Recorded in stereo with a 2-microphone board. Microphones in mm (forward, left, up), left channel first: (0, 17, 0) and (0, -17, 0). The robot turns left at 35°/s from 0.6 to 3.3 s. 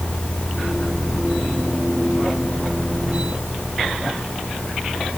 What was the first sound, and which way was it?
Only background noise.